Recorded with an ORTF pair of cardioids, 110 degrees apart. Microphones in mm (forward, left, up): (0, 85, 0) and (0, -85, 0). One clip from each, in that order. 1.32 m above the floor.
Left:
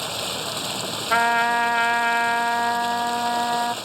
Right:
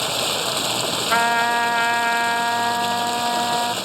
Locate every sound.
0.0 s running water: 30° right
1.1 s a trumpet: straight ahead